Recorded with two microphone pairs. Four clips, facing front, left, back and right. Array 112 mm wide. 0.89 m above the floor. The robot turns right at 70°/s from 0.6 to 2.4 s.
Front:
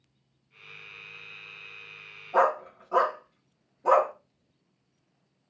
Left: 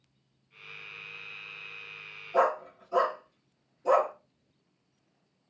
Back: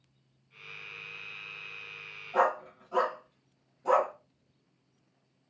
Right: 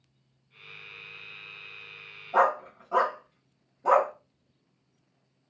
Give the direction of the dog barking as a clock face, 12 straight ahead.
2 o'clock.